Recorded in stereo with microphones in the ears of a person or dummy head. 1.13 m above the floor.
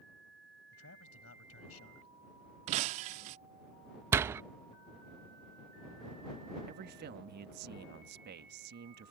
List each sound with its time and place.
0.7 s a man speaking: 70° left (ahead or behind)
2.7 s breaking glass: 40° right (ahead or behind)
4.1 s a door slam: 15° right (ahead or behind)
6.7 s a man speaking: 50° right (ahead or behind)